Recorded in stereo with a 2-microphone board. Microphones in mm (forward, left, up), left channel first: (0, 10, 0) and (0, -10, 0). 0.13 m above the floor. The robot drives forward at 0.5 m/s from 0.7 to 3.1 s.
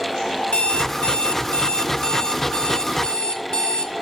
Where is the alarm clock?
70° left (ahead or behind), 1.1 m; by 3.9 s 40° left (ahead or behind), 1.7 m.